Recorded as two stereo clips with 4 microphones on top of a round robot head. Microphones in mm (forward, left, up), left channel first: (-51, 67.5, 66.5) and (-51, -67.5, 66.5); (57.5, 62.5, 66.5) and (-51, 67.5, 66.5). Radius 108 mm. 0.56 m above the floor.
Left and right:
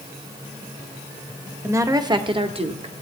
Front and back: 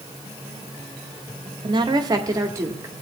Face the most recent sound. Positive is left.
turn(degrees=-115)